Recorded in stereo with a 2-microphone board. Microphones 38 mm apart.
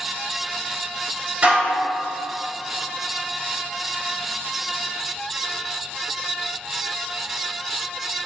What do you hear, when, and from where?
1.4 s dishes clattering: 40° right (ahead or behind), 2.0 m